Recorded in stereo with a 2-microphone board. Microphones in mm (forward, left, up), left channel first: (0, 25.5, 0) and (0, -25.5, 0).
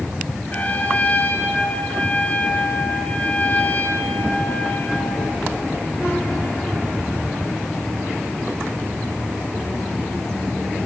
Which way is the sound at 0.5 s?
30° left (ahead or behind).